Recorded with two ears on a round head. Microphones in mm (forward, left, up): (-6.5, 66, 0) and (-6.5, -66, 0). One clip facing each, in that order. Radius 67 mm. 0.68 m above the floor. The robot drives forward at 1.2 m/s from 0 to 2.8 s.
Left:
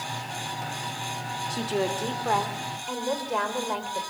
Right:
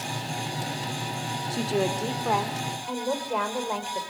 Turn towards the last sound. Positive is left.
turn(degrees=-5)  # may be behind; listen again after turning